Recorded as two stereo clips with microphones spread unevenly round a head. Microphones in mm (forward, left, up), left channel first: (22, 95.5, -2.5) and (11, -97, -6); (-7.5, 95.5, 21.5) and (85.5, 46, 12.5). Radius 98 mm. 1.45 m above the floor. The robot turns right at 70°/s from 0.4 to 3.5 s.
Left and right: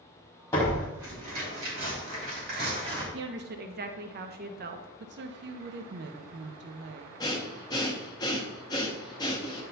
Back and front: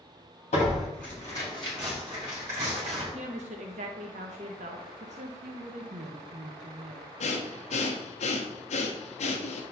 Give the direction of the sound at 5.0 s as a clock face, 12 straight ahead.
2 o'clock.